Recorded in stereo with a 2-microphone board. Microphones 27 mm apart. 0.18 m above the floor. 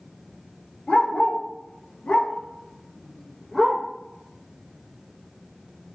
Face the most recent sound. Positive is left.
turn(degrees=5)  # may be behind; listen again after turning